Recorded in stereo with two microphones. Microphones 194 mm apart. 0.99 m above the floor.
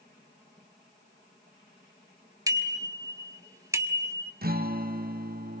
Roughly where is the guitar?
Right.